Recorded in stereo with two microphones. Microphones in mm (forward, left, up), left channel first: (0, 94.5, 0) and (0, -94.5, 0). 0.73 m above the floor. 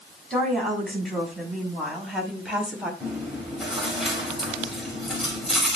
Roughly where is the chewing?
Centre.